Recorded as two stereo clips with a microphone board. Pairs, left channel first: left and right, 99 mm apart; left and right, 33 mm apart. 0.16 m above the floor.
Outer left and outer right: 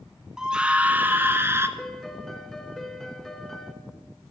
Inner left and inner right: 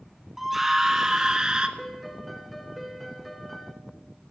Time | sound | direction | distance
0.4 | a scream | 5° right (ahead or behind) | 1.3 m
1.8 | a piano | 5° left (ahead or behind) | 1.4 m